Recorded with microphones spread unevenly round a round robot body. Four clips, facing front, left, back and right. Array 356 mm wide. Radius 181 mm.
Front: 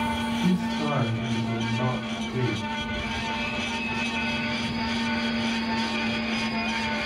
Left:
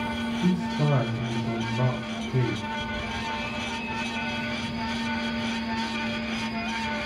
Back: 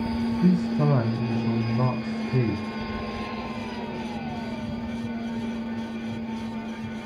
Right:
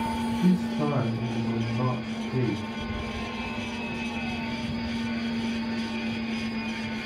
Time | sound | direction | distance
0.4 | a man speaking | 155° left | 1.6 m